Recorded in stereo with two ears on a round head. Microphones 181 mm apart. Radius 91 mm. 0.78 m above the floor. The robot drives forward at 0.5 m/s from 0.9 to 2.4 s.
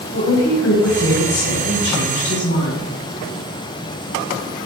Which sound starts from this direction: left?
A woman speaking, at 0.1 s.